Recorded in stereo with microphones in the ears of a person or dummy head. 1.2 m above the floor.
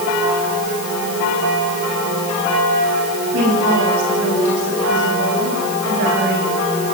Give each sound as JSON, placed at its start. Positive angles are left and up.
{"t": 3.3, "sound": "a woman speaking", "side_deg": -65, "distance_m": 9.0}